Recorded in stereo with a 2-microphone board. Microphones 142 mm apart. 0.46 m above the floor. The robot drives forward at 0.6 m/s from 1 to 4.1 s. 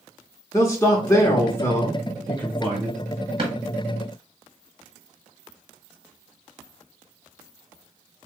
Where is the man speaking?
25° left (ahead or behind), 0.8 m; by 3.0 s 10° left (ahead or behind), 1.6 m.